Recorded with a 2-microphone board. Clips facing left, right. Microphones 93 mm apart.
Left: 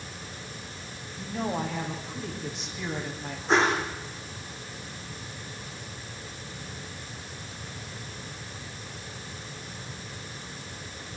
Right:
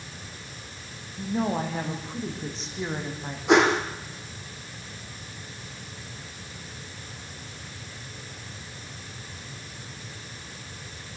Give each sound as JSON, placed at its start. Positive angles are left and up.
{"t": 1.2, "sound": "a woman speaking", "side_deg": -40, "distance_m": 8.0}
{"t": 3.5, "sound": "a whoosh", "side_deg": -75, "distance_m": 4.5}